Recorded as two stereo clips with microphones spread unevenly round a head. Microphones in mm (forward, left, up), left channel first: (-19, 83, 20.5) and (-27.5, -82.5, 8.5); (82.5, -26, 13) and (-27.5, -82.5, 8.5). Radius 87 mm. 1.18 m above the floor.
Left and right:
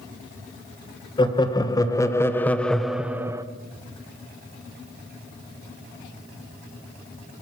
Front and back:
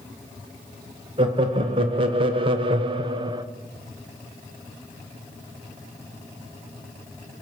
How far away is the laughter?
About 1.4 m.